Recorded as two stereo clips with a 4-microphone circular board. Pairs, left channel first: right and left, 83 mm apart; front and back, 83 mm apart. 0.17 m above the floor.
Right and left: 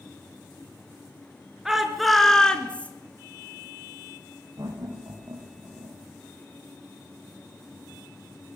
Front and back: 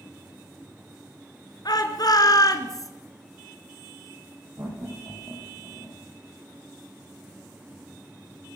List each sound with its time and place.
1.6 s a shout: 5° left, 3 m; by 2.9 s 25° right, 2.5 m
4.6 s laughter: 135° left, 8 m